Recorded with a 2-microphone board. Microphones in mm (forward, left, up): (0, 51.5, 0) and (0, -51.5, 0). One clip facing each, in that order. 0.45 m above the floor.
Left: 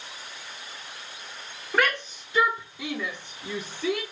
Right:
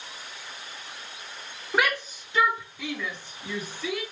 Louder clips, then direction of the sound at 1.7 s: Left 1 dB; 10° right (ahead or behind).